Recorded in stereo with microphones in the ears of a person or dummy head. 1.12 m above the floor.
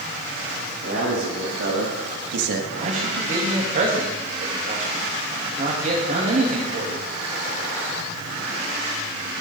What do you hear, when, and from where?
0.8 s a man speaking: 65° right (ahead or behind), 2.5 m; by 2.6 s 50° right (ahead or behind), 1.1 m
2.7 s a man speaking: 40° right (ahead or behind), 1.7 m